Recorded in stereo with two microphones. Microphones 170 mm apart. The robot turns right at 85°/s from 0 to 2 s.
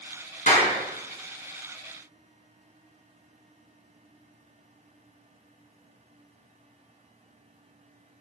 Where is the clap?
55° left (ahead or behind), 3.5 m; by 0.7 s 35° left (ahead or behind), 3.5 m.